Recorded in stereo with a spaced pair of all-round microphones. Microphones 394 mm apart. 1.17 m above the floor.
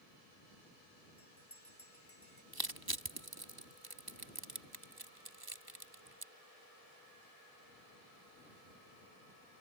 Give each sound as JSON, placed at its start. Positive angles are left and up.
{"t": 1.2, "sound": "a bell", "side_deg": 35}
{"t": 2.5, "sound": "crushing", "side_deg": -70}